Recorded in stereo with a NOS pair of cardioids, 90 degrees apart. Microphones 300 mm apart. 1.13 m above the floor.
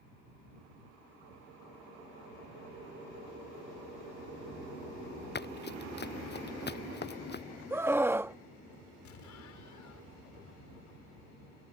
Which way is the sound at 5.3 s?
35° left.